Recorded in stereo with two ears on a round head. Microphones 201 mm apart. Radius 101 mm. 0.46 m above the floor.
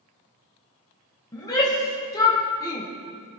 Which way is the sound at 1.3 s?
15° left (ahead or behind).